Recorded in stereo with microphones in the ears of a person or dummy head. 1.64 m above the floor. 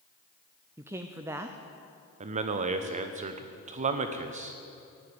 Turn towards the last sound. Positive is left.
turn(degrees=-40)  # may be behind; listen again after turning